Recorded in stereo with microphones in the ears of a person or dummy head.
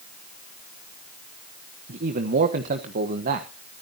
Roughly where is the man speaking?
Right.